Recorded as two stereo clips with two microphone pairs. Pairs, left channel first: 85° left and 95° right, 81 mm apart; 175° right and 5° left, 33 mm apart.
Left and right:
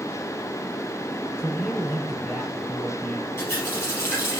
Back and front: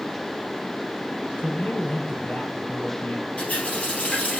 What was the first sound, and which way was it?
A man speaking, 165° left.